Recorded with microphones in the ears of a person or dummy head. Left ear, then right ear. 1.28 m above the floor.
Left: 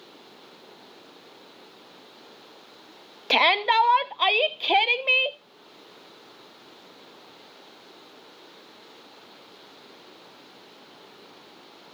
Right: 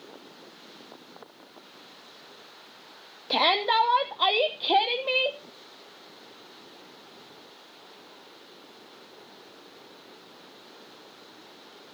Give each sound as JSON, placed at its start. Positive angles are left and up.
{"t": 3.3, "sound": "a shout", "side_deg": 50, "distance_m": 1.0}